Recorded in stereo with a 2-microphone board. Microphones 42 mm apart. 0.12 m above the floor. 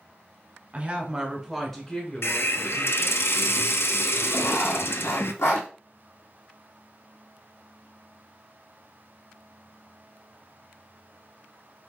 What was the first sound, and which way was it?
A woman speaking, 30° right (ahead or behind).